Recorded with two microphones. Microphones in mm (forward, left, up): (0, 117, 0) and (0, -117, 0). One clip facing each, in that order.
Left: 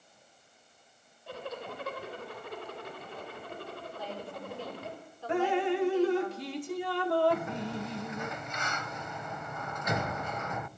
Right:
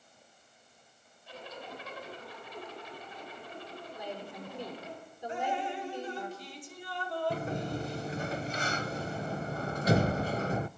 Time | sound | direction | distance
1.3 | a zipper | 65° left (ahead or behind) | 3.5 m
4.0 | a woman speaking | 20° right (ahead or behind) | 6 m
5.3 | dripping | 70° left (ahead or behind) | 0.9 m
7.3 | a sliding door | 35° right (ahead or behind) | 0.5 m